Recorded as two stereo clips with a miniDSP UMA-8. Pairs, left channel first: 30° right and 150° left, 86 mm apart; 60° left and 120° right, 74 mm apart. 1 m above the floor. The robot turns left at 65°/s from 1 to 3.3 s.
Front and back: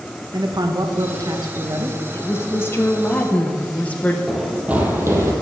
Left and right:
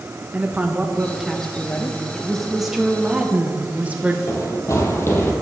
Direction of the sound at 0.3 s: 175° left.